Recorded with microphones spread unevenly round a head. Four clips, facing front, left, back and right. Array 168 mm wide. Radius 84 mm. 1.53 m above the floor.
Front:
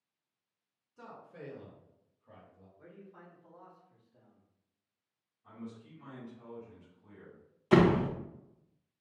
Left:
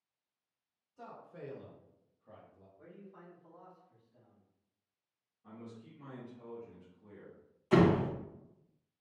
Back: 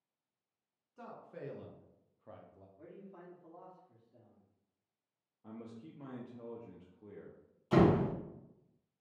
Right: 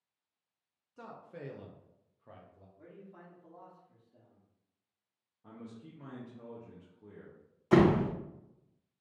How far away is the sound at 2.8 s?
About 1.8 m.